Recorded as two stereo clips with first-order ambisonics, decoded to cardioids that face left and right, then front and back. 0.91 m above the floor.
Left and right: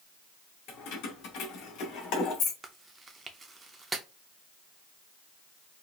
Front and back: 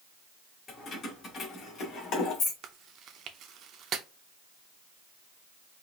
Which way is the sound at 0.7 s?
65° left.